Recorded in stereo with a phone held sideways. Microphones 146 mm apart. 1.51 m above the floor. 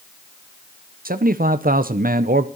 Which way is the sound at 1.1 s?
80° right.